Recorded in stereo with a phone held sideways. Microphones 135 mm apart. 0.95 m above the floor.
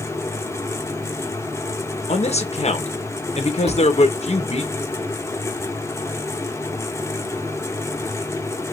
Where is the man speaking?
55° left (ahead or behind), 1.2 m.